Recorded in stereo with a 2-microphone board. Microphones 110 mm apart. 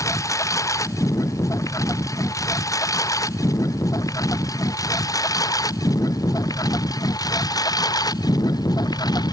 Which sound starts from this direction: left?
A lawn mower, at 0.0 s.